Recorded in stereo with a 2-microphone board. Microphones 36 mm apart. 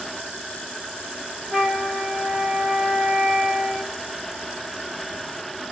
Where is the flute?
50° right (ahead or behind), 2 m.